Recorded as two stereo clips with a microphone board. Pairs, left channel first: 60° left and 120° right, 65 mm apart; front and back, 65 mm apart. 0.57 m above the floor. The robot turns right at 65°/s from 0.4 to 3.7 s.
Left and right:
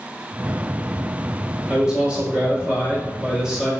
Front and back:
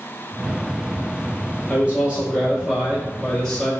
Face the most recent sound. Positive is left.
turn(degrees=-50)